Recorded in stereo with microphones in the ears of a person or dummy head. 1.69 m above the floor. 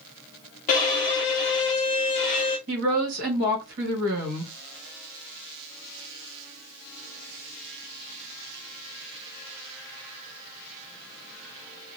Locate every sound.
0.7 s a violin: 30° left (ahead or behind), 0.8 m
2.7 s a woman speaking: 45° right (ahead or behind), 1.5 m